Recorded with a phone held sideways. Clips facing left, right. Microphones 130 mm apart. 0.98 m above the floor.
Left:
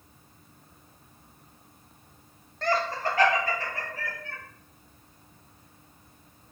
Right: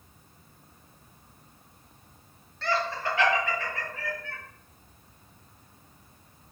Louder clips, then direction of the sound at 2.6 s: Left 2 dB; 50° left (ahead or behind).